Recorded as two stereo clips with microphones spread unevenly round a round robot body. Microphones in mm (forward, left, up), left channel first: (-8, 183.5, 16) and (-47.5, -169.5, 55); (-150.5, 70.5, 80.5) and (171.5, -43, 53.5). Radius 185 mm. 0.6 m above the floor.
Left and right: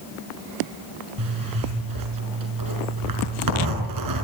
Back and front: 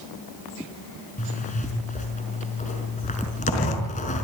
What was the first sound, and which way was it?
A zipper, 130° right.